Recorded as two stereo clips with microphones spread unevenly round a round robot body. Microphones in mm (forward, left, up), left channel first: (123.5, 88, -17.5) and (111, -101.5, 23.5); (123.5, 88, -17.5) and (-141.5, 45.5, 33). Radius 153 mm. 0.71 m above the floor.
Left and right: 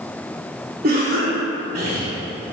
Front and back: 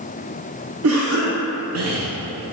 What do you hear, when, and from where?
0.8 s a cough: 155° right, 0.6 m